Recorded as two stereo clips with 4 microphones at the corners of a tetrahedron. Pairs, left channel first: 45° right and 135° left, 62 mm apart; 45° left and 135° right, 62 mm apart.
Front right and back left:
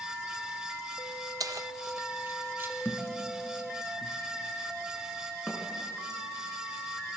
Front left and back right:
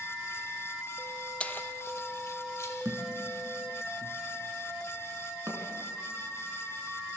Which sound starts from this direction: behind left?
Keys jangling, at 1.4 s.